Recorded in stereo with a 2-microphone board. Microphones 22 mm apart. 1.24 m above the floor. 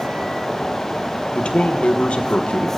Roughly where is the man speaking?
Left.